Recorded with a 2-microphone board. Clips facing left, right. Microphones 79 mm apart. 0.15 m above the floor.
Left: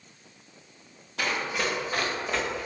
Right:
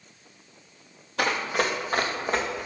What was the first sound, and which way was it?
Running footsteps, 60° right (ahead or behind).